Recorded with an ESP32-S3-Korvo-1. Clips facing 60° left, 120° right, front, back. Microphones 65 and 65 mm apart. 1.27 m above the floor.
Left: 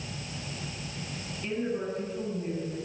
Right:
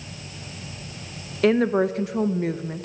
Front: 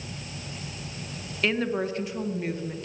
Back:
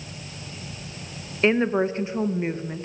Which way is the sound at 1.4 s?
115° right.